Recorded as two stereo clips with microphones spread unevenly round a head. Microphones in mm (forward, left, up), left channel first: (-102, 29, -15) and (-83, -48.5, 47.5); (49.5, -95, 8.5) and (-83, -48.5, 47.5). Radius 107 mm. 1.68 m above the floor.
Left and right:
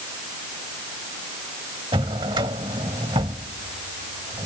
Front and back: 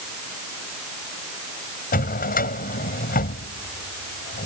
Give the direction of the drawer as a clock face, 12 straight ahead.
1 o'clock.